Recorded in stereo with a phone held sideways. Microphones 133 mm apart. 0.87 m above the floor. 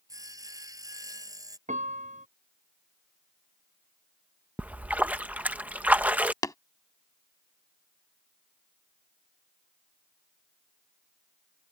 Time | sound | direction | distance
0.1 | sawing | 30° right (ahead or behind) | ?
1.7 | a piano | 90° right | ?
4.6 | a splash | 15° right (ahead or behind) | ?
6.4 | tapping | 30° left (ahead or behind) | ?